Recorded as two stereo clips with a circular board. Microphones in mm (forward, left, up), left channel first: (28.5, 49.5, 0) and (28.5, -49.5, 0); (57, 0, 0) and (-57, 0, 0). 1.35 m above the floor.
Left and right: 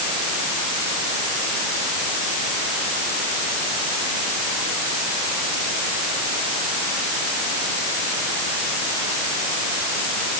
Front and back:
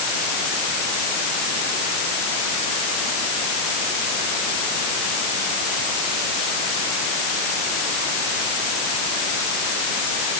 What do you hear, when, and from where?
Only background noise.